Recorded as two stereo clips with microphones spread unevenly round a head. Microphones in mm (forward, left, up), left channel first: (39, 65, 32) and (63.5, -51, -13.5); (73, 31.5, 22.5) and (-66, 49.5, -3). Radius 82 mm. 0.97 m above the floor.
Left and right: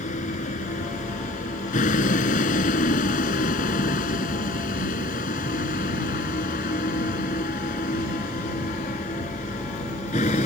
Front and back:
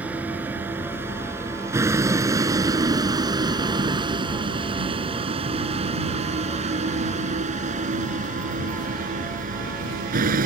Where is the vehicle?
90° left; by 10.5 s 150° left.